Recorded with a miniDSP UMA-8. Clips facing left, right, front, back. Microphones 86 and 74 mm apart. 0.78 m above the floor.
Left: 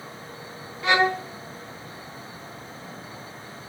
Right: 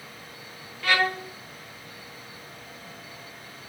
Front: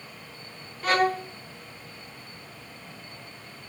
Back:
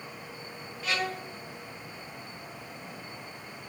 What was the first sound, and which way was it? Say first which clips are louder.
A violin: left 4 dB, front 9 dB; 25° left.